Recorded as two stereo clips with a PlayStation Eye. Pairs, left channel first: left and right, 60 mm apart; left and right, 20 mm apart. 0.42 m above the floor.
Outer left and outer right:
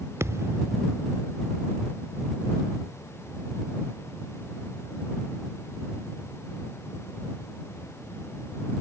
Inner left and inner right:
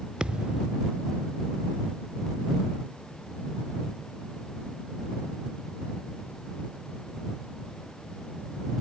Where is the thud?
50° right (ahead or behind).